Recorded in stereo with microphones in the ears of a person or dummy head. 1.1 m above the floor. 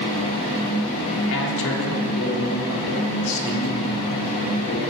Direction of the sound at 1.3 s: 70° left (ahead or behind).